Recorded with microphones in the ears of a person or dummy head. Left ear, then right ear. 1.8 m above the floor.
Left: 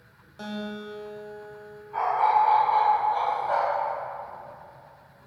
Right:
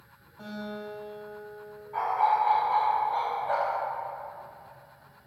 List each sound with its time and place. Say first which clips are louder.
0.4 s a guitar: left 3 dB; 80° left, 2 m
1.9 s a dog barking: left 3 dB; 5° right (ahead or behind), 1.6 m